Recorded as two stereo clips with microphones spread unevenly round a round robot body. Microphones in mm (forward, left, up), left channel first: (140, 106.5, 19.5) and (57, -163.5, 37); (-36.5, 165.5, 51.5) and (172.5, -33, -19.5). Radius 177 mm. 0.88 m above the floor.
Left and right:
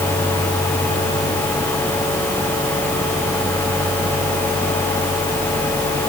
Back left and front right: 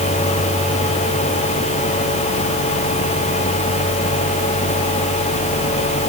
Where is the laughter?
I don't hear laughter.